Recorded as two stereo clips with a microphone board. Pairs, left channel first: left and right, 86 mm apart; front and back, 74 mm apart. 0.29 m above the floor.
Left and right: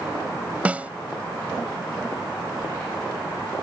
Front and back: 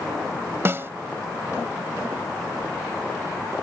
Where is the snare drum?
155° right.